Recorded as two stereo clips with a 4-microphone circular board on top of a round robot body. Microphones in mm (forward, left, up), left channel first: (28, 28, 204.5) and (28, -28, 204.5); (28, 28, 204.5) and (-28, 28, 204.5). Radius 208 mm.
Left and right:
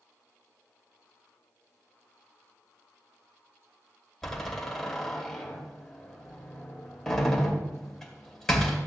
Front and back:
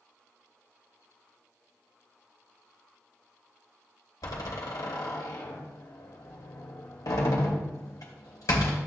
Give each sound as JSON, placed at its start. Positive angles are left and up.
{"t": 4.2, "sound": "a door slam", "azimuth_deg": 5, "distance_m": 2.0}